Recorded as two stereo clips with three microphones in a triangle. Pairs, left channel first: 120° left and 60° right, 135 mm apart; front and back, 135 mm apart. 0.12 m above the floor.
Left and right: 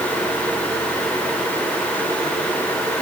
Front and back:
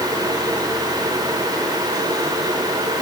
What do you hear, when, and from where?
Only background noise.